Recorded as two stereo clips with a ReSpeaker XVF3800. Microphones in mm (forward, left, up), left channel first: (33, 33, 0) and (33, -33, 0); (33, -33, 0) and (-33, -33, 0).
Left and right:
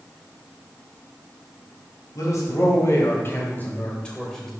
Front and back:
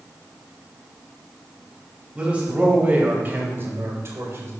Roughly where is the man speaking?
Left.